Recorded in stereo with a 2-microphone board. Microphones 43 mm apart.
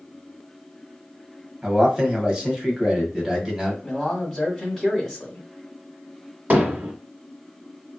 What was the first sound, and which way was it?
A man speaking, 15° right (ahead or behind).